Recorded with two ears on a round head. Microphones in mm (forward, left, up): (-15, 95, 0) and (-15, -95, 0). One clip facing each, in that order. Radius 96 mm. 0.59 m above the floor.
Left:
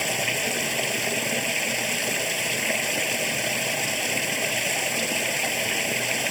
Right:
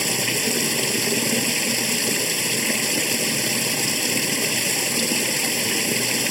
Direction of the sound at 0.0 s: 55° right (ahead or behind).